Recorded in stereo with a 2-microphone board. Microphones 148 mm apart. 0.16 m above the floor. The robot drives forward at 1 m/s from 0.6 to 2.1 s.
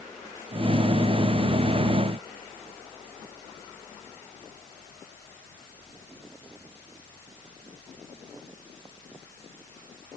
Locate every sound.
Only background noise.